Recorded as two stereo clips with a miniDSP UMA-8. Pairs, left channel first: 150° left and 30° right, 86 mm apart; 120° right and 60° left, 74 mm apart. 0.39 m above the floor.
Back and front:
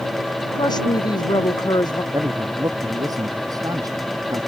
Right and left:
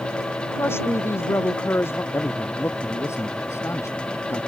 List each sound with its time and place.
0.6 s a woman speaking: 175° right
2.1 s a man speaking: 70° right